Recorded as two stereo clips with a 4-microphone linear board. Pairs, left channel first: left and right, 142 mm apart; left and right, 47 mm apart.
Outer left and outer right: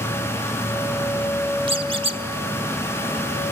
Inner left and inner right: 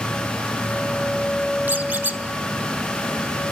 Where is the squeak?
40° right (ahead or behind), 1.4 m.